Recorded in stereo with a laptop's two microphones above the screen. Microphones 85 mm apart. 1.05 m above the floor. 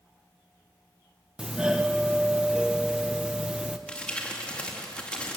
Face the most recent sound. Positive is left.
turn(degrees=15)  # may be behind; listen again after turning